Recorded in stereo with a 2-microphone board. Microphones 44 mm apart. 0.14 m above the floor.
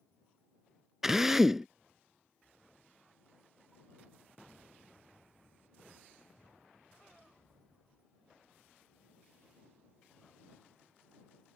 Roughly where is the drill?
Centre.